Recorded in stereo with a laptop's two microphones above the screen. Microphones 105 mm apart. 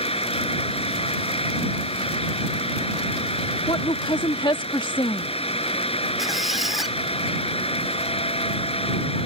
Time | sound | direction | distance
0.0 | a fan | 60° left (ahead or behind) | ?
3.7 | a woman speaking | 45° left (ahead or behind) | ?
6.2 | a squeak | centre (ahead or behind) | ?